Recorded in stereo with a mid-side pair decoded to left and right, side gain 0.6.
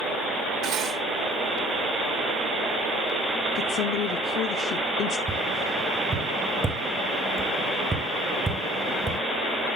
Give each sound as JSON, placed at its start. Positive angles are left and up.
{"t": 0.6, "sound": "cutlery clinking", "azimuth_deg": -65, "distance_m": 2.5}
{"t": 3.5, "sound": "a woman speaking", "azimuth_deg": 55, "distance_m": 0.6}
{"t": 5.3, "sound": "tapping", "azimuth_deg": -20, "distance_m": 1.3}